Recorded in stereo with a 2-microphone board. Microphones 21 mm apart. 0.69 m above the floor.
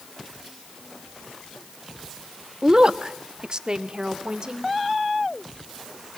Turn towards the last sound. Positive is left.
turn(degrees=-40)  # may be behind; listen again after turning